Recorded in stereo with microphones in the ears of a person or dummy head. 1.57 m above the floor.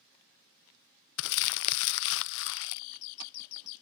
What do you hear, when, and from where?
1.2 s crumpling: 70° left (ahead or behind)